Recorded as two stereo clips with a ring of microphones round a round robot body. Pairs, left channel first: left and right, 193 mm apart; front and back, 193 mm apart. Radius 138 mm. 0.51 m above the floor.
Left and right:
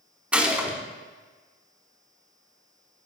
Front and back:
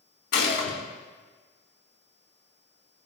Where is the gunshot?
5° right, 3.5 m.